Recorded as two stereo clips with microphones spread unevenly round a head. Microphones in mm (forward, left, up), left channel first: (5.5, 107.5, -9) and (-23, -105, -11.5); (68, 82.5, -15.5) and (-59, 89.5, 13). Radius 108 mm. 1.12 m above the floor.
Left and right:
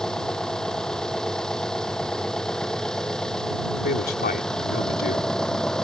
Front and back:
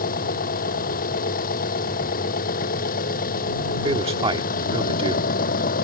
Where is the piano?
I don't hear a piano.